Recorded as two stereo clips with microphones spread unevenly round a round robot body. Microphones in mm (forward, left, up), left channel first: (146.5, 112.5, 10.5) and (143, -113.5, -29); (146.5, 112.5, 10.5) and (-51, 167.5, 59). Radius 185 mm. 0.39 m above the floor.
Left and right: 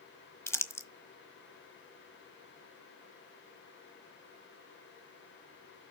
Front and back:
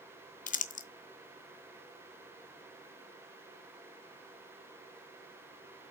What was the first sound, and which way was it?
Crumpling, 5° left.